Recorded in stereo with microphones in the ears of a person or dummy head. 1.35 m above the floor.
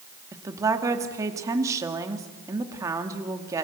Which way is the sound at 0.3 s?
20° right (ahead or behind).